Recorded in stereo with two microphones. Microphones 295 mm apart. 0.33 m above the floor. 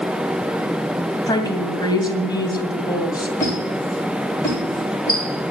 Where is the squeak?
10° left (ahead or behind), 9 m.